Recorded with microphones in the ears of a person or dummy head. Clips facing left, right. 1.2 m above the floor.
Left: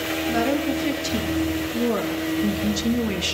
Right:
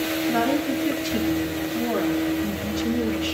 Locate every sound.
0.3 s a woman speaking: 50° left (ahead or behind), 3 m; by 3.4 s 60° left (ahead or behind), 0.9 m